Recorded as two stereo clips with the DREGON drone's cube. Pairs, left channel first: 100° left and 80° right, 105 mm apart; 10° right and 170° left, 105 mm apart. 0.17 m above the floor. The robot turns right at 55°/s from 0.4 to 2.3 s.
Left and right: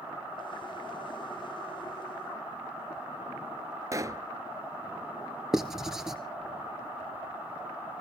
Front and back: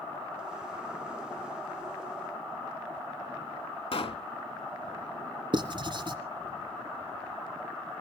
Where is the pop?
25° right, 0.8 m.